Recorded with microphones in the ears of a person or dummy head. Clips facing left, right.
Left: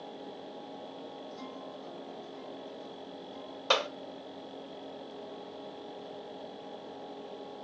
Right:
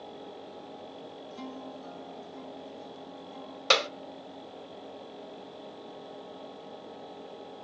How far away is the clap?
About 0.7 m.